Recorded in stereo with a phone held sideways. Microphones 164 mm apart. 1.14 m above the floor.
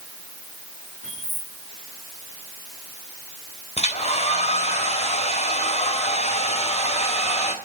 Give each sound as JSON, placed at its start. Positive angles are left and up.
{"t": 1.0, "sound": "keys jangling", "side_deg": -45, "distance_m": 8.5}
{"t": 3.8, "sound": "a hair dryer", "side_deg": 45, "distance_m": 3.0}